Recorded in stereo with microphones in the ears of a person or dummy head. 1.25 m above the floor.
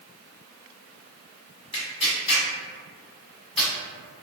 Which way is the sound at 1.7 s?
25° left (ahead or behind).